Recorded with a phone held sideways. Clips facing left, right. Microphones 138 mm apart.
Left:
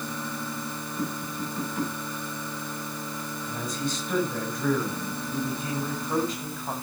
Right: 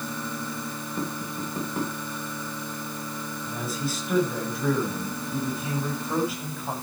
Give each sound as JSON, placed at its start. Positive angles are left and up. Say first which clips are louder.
{"t": 1.0, "sound": "tapping", "louder": "even", "side_deg": -50, "distance_m": 5.5}
{"t": 3.5, "sound": "a man speaking", "louder": "even", "side_deg": -5, "distance_m": 6.5}